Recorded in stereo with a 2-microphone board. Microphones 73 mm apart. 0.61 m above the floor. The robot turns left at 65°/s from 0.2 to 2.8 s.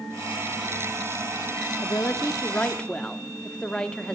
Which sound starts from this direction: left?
A woman speaking, at 1.8 s.